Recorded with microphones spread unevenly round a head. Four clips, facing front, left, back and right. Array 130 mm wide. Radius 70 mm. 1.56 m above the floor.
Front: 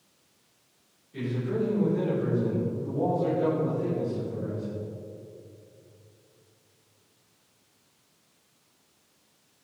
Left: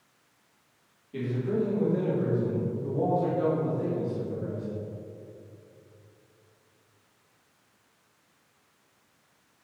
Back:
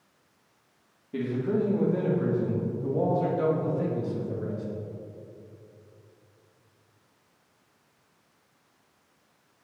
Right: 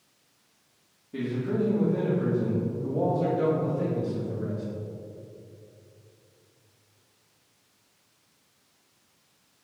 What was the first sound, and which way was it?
A man speaking, 165° right.